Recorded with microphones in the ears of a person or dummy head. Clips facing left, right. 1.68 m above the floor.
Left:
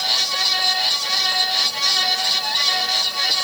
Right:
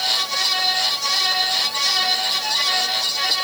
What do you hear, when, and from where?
Only background noise.